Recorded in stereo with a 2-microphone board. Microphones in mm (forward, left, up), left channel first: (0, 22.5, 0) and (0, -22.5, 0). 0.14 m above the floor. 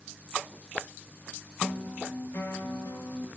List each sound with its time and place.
1.6 s a guitar: 70° left (ahead or behind), 6.5 m